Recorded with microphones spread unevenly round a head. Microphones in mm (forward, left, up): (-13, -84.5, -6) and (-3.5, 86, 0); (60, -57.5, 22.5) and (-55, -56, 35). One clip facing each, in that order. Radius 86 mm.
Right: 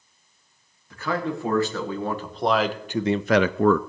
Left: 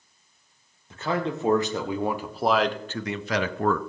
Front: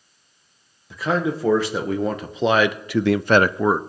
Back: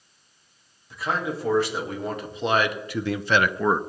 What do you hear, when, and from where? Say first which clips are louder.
0.9 s a man speaking: even, front 5 dB; 20° left, 2 m; by 3.8 s 90° right, 0.5 m